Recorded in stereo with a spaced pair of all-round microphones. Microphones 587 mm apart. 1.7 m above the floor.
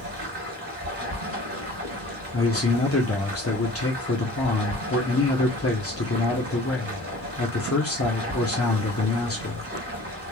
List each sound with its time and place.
0.0 s running water: 25° right (ahead or behind), 1.6 m
2.3 s a man speaking: 25° left (ahead or behind), 0.7 m